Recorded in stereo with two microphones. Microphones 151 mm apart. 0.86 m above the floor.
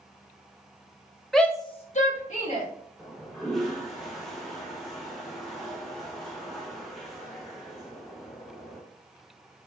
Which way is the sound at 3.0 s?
Centre (ahead or behind).